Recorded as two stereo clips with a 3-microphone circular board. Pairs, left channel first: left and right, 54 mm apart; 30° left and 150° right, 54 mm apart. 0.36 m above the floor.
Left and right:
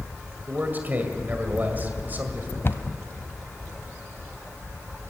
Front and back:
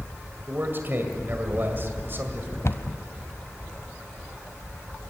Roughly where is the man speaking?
Behind right.